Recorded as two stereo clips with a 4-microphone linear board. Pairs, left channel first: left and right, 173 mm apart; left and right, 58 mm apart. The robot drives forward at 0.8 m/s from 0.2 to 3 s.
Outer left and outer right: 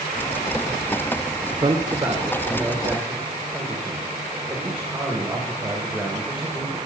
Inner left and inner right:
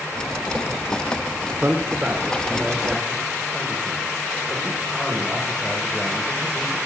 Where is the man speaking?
30° right (ahead or behind), 0.8 m; by 6.8 s 10° right (ahead or behind), 1.9 m.